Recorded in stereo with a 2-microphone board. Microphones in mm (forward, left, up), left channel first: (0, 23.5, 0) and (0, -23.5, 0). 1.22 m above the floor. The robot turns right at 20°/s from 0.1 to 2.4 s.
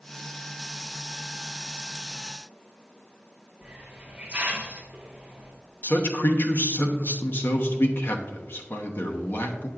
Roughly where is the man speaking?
Left.